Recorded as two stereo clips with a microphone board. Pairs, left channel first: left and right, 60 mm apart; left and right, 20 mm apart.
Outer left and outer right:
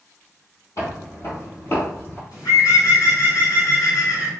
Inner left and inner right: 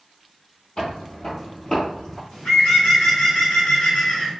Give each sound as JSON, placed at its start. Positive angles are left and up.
{"t": 0.8, "sound": "footsteps", "side_deg": 60, "distance_m": 1.6}
{"t": 2.3, "sound": "a bird", "side_deg": 70, "distance_m": 2.0}